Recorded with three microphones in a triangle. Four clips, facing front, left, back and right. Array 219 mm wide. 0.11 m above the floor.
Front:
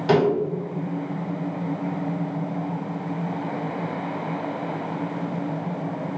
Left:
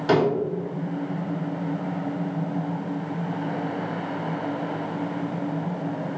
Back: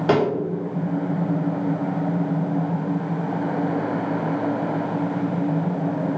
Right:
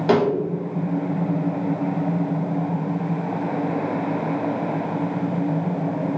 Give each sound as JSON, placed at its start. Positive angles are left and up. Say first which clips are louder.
{"t": 0.1, "sound": "a snare drum", "louder": "right 2 dB, even", "azimuth_deg": -145, "distance_m": 1.3}